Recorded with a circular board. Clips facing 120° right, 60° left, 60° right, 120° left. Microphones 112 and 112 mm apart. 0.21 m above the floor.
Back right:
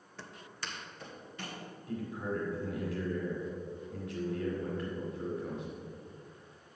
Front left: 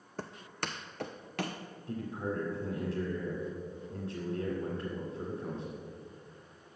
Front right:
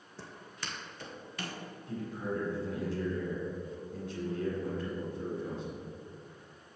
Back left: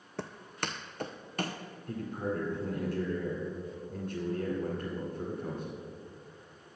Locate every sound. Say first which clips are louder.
0.2 s footsteps: front left 6 dB, back left 7 dB; 105° left, 0.6 m; by 1.6 s 75° left, 1.1 m
1.9 s a man speaking: even, back left 2 dB; 110° left, 1.9 m